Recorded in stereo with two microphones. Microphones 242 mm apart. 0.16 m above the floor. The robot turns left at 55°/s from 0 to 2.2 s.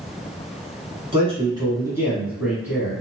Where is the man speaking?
25° right (ahead or behind), 1.1 m; by 3.0 s 5° right (ahead or behind), 1.1 m.